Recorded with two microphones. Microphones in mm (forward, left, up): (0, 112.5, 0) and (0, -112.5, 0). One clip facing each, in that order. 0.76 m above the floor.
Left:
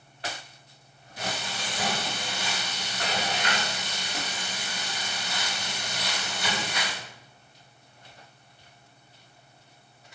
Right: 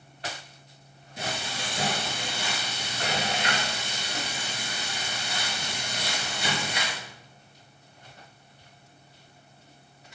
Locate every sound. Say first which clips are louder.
1.2 s frying: even; 25° right (ahead or behind), 4 m